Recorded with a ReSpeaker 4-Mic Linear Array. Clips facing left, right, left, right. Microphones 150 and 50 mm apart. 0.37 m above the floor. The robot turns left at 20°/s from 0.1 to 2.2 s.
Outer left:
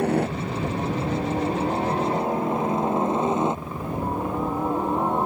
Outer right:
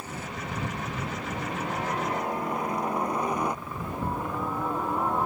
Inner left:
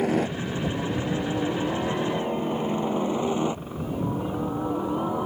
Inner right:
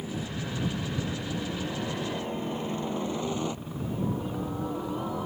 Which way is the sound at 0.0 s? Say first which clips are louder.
Outer left 14 dB, inner left 10 dB; 65° left (ahead or behind).